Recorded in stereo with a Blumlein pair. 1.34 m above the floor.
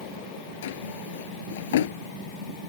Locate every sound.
0.6 s a drawer: 60° left